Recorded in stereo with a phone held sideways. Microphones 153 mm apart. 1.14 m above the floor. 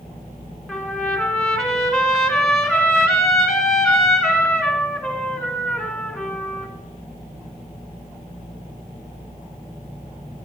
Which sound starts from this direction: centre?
A trumpet, at 0.7 s.